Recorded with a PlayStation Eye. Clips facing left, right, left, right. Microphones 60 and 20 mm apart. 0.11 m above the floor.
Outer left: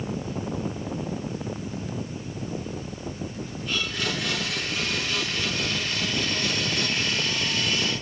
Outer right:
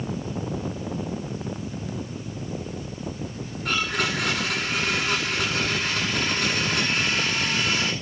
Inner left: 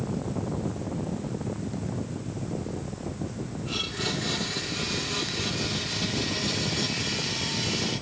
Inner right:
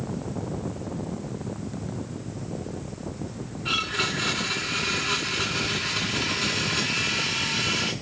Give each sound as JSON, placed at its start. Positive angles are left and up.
{"t": 3.6, "sound": "a blender", "side_deg": -60, "distance_m": 9.5}